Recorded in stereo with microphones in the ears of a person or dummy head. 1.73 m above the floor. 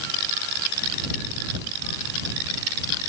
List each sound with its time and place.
Only background noise.